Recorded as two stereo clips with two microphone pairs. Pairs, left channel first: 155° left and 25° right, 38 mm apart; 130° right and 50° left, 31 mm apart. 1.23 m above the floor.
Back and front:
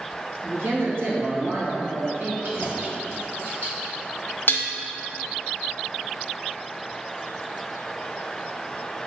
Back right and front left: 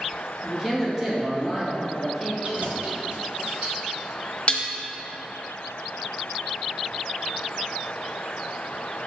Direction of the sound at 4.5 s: 175° right.